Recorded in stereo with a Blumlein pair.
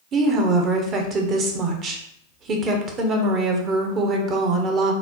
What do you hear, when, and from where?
0.1 s a woman speaking: 30° right, 0.7 m